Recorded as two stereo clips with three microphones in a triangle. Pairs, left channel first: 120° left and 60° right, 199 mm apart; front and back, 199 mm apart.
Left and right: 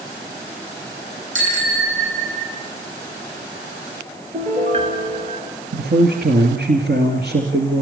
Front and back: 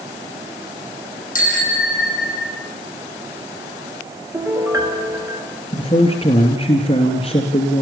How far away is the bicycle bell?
About 6 m.